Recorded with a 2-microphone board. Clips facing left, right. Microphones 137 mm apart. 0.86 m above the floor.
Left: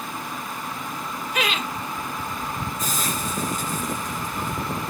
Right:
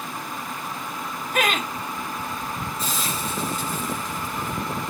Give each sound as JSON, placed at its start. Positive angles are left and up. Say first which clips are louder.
{"t": 1.3, "sound": "laughter", "louder": "right 3 dB", "side_deg": -55, "distance_m": 1.8}
{"t": 2.8, "sound": "a hiss", "louder": "left 1 dB", "side_deg": 50, "distance_m": 4.0}